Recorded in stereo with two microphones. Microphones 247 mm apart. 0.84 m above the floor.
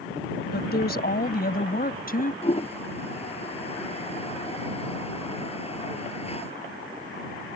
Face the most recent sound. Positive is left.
turn(degrees=25)  # may be behind; listen again after turning